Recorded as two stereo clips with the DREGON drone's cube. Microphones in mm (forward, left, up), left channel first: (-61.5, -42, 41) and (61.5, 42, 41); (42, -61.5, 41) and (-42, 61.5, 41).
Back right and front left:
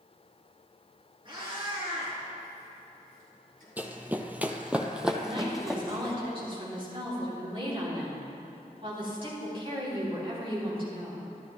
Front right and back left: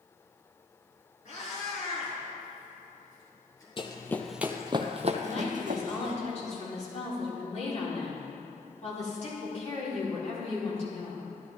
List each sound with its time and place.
1.2 s a cat meowing: 20° right, 3.5 m; by 3.7 s 10° left, 3.5 m
3.8 s running footsteps: 40° right, 0.8 m; by 6.2 s 125° left, 1.7 m
5.2 s a woman speaking: 15° right, 3.5 m